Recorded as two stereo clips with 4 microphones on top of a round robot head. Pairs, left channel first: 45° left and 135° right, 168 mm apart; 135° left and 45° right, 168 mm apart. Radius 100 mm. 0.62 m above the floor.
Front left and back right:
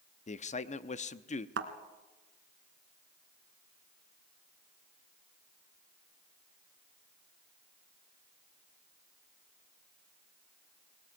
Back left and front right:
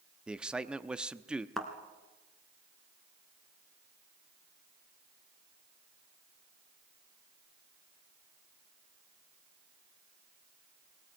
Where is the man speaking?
35° left, 0.9 m.